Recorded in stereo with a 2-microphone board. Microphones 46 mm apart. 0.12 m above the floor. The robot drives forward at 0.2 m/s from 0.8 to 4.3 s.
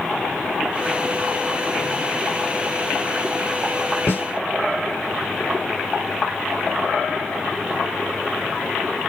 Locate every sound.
4.1 s a snare drum: 40° left (ahead or behind), 1.5 m